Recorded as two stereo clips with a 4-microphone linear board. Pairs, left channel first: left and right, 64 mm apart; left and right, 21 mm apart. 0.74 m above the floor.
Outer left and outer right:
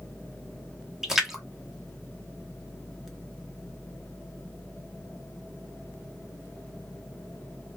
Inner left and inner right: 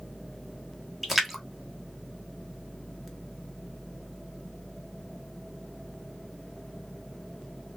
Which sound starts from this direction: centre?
A splash, at 1.0 s.